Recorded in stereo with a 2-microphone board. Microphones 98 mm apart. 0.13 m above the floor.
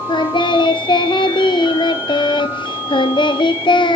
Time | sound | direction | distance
0.1 | singing | 60° left (ahead or behind) | 1.5 m